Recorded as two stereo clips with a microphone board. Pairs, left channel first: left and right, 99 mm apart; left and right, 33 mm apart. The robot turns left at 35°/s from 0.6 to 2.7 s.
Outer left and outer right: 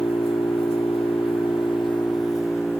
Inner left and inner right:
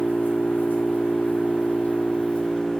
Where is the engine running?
100° left, 2 m; by 2.8 s 25° left, 2 m.